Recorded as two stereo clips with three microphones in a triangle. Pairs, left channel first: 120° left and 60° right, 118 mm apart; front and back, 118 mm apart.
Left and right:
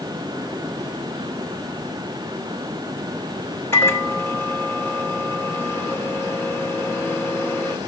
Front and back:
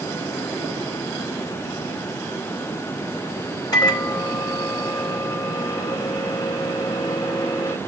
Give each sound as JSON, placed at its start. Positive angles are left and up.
{"t": 3.7, "sound": "a microwave", "azimuth_deg": 50, "distance_m": 2.0}